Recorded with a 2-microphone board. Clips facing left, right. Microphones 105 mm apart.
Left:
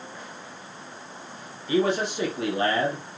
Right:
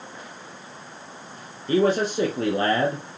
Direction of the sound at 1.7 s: 45° right (ahead or behind).